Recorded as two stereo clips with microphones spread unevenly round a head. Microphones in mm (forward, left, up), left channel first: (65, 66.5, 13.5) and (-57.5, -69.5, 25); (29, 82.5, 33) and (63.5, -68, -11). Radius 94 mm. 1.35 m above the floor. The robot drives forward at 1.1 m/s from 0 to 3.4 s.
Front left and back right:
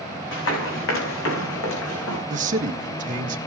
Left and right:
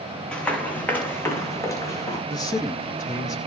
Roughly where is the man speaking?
Behind.